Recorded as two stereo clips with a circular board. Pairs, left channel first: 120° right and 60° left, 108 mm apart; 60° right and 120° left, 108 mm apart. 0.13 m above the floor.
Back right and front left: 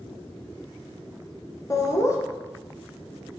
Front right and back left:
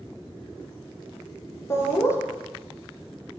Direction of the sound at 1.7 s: 100° right.